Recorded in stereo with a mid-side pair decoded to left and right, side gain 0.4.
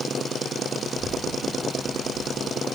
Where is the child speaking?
30° left, 6.5 m; by 2.6 s 25° left, 5.5 m.